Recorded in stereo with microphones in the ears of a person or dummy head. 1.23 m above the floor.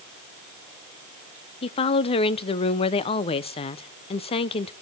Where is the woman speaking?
30° left (ahead or behind), 0.5 m.